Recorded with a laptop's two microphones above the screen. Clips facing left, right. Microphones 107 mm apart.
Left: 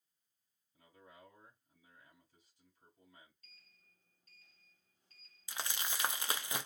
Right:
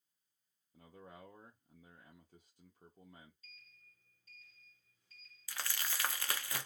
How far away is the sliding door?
About 1.4 m.